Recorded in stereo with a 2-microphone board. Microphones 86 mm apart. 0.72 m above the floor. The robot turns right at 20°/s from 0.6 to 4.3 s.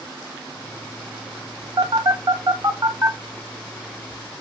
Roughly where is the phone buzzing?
Right.